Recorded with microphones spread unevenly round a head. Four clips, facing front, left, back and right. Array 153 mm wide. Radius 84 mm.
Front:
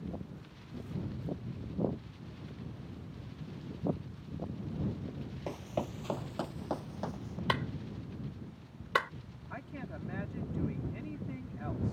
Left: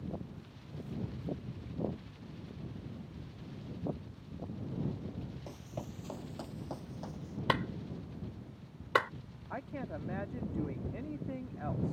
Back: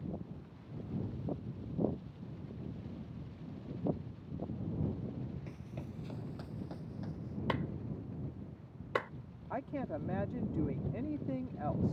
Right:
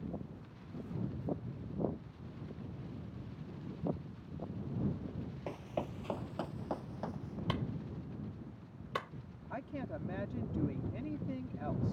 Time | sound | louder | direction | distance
5.5 | running footsteps | right 5 dB, front 10 dB | 15° right | ?
7.5 | a clap | left 7 dB, front 3 dB | 105° left | ?
9.5 | a woman speaking | left 1 dB, back 6 dB | 165° left | ?